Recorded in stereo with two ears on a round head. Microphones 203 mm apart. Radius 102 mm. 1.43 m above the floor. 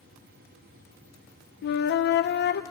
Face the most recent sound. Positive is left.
turn(degrees=50)  # may be behind; listen again after turning